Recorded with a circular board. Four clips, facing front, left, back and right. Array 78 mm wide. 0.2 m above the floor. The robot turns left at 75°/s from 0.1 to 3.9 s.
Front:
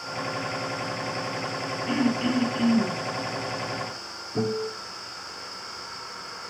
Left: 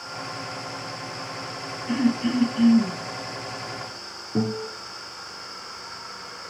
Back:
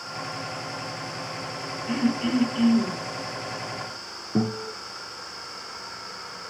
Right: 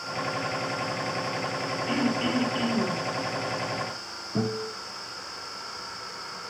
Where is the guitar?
165° left, 5 m.